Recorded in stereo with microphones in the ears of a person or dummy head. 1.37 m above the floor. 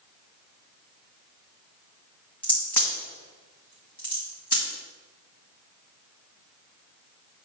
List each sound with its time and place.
2.4 s a crack: 5° left (ahead or behind), 2.5 m